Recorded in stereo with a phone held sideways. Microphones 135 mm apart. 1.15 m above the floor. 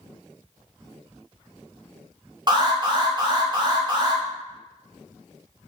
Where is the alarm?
35° right (ahead or behind), 0.8 m.